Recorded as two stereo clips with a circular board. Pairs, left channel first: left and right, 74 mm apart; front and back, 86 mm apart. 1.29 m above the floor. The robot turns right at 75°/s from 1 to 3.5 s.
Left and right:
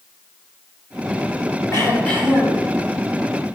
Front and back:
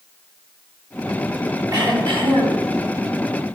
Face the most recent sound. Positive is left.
turn(degrees=-85)